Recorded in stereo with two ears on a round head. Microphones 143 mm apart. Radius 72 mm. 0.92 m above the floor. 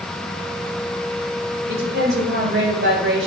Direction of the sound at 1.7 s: 80° right.